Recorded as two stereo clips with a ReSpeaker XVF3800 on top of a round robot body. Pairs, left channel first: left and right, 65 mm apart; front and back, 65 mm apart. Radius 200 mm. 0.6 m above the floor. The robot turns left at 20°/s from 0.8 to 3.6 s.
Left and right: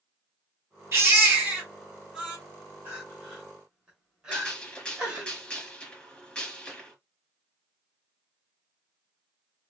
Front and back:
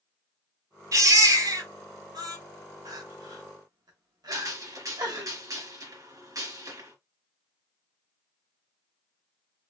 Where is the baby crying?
145° right, 1.8 m; by 2.4 s 170° right, 1.8 m.